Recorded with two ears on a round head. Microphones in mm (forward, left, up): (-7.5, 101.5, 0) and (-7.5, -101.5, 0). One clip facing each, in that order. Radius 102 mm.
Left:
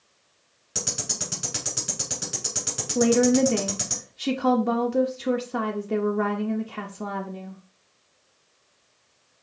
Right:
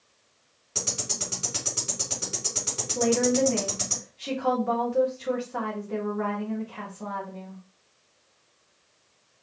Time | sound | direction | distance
0.8 | ticking | 20° left (ahead or behind) | 3 m
3.0 | a woman speaking | 55° left (ahead or behind) | 0.7 m